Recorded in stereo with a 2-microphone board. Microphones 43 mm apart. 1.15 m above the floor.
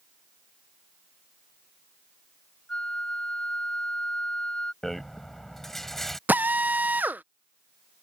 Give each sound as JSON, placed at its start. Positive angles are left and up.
{"t": 2.7, "sound": "a flute", "side_deg": 25}
{"t": 4.8, "sound": "a rattle", "side_deg": 5}
{"t": 6.3, "sound": "a drill", "side_deg": -45}